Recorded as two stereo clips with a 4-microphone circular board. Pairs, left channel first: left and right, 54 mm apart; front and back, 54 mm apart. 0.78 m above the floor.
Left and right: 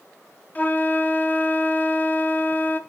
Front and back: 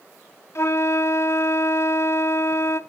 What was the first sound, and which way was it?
A flute, 30° left.